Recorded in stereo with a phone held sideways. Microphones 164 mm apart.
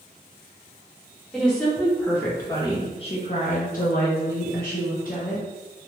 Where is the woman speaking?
Centre (ahead or behind), 1.5 m; by 5.5 s 55° left (ahead or behind), 1.3 m.